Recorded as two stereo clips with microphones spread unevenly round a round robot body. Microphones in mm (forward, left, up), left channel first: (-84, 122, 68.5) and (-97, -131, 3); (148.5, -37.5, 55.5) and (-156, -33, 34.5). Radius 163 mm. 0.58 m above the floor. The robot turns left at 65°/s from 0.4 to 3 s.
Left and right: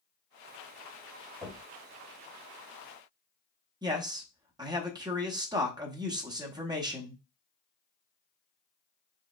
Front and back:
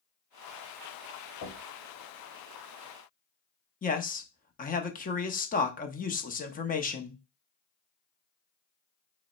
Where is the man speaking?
55° right, 0.9 m.